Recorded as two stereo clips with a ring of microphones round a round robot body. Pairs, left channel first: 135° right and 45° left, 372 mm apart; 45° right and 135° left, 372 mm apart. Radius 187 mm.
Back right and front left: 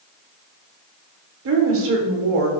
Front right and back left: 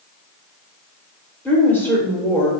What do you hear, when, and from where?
1.4 s a woman speaking: 35° left, 0.9 m